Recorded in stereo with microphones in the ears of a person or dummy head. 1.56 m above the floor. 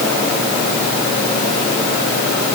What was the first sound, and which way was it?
Only background noise.